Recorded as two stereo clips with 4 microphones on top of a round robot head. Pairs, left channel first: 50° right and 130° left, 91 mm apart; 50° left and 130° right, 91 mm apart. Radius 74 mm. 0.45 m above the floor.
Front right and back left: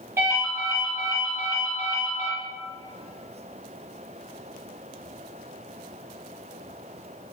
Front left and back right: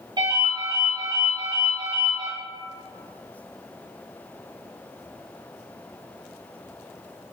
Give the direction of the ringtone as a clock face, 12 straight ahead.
5 o'clock.